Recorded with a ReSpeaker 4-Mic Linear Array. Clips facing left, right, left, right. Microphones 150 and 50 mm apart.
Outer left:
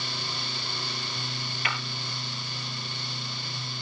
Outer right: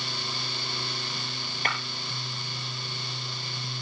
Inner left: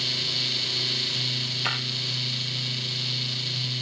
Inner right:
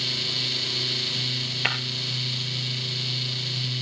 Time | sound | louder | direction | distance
1.6 | breaking glass | outer right 2 dB, inner right 3 dB | 45° right (ahead or behind) | 3 m